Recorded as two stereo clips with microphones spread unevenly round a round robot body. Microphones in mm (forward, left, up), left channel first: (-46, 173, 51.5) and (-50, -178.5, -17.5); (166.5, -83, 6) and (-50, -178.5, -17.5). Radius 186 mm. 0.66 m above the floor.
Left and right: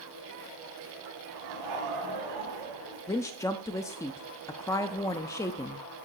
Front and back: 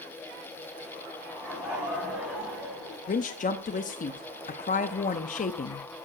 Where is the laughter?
75° right, 5 m.